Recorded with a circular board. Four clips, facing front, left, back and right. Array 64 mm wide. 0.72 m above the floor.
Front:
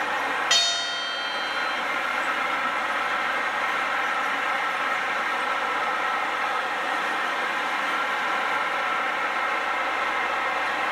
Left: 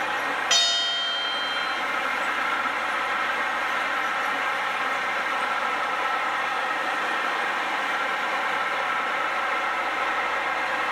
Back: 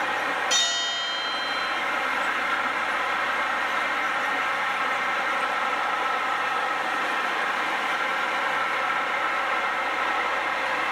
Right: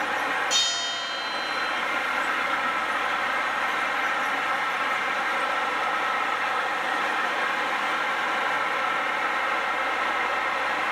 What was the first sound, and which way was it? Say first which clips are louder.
A bell: left 3 dB, front 1 dB; 30° left.